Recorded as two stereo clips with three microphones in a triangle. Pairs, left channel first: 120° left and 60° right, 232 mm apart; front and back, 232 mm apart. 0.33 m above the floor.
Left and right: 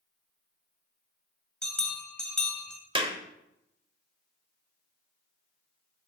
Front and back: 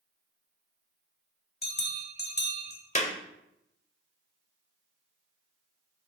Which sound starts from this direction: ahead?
A clap, at 3.0 s.